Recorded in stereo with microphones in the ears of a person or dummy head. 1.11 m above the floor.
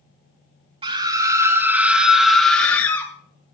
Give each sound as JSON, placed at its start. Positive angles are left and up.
{"t": 0.8, "sound": "a scream", "side_deg": -25, "distance_m": 2.5}